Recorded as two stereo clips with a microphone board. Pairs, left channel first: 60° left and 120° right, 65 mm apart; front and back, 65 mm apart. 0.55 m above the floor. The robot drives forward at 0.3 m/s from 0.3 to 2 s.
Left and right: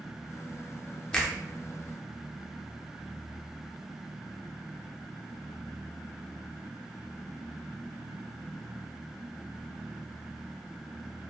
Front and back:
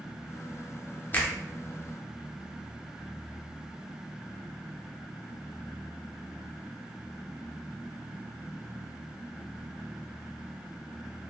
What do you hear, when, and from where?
1.1 s a finger snap: straight ahead, 0.6 m